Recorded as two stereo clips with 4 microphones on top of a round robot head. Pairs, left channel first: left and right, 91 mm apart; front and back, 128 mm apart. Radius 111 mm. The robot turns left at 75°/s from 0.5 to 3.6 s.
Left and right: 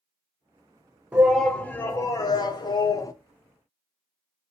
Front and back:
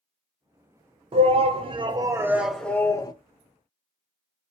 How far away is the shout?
About 0.7 m.